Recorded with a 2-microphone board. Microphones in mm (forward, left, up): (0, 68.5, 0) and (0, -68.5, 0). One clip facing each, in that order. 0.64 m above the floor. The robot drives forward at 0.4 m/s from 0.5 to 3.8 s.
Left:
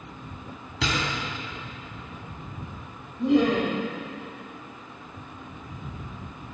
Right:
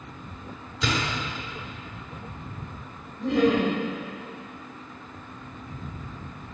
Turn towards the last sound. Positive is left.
turn(degrees=15)  # may be behind; listen again after turning